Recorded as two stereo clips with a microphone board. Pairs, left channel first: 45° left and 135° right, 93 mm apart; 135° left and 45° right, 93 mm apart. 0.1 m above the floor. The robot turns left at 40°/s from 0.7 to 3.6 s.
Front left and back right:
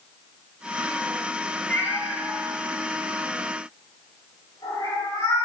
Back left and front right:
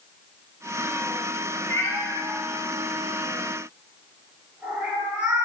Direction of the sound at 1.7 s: 100° left.